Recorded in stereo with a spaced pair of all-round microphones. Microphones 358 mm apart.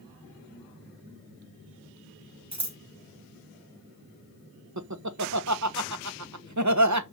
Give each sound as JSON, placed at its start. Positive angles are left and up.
{"t": 2.5, "sound": "scissors", "side_deg": -50, "distance_m": 1.7}
{"t": 4.8, "sound": "laughter", "side_deg": -50, "distance_m": 1.1}